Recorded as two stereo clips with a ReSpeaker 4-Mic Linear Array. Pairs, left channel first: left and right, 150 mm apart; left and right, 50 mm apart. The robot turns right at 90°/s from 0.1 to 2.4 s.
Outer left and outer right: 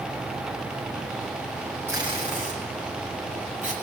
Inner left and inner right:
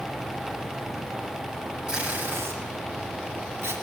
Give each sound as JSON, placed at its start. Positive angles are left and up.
{"t": 1.9, "sound": "tape being pulled", "side_deg": -15, "distance_m": 8.0}